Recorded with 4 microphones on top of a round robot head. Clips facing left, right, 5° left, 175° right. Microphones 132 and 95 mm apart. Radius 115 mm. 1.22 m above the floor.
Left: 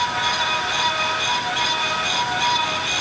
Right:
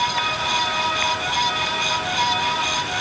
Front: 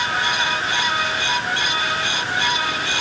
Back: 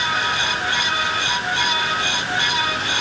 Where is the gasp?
No gasp in this recording.